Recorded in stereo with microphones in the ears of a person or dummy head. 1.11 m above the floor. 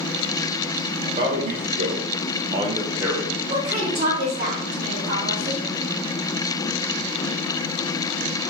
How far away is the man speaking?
About 1.1 m.